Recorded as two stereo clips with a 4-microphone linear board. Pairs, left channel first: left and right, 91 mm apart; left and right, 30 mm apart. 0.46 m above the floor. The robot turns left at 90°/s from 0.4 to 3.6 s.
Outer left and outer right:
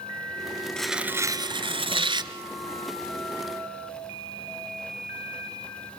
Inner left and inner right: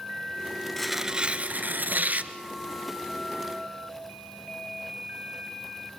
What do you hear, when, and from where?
0.8 s tearing paper: 10° left, 1.3 m; by 2.3 s 130° right, 1.3 m